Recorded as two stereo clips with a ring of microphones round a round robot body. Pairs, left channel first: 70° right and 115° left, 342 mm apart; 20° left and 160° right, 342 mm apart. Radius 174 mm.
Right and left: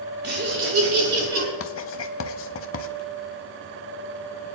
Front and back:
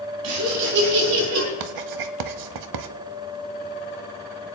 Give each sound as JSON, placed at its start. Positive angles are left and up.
{"t": 0.2, "sound": "laughter", "azimuth_deg": 175, "distance_m": 2.5}
{"t": 1.6, "sound": "writing", "azimuth_deg": -125, "distance_m": 0.6}